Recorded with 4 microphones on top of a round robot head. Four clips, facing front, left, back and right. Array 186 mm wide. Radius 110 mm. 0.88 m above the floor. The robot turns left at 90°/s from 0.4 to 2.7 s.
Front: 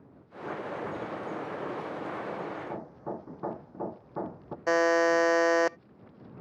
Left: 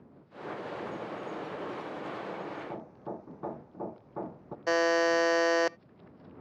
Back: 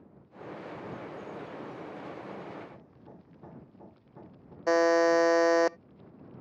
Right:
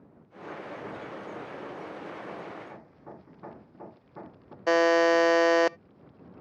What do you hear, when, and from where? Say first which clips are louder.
2.6 s hammering: left 5 dB, front 11 dB; 35° left; by 4.6 s 25° left
4.7 s a buzzer: right 4 dB, back 1 dB; 115° right